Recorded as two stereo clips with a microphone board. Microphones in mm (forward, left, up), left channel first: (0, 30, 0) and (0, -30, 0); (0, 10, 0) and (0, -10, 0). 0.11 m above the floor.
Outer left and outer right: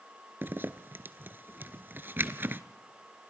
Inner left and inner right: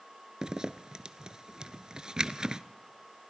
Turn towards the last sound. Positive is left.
turn(degrees=-40)  # may be behind; listen again after turning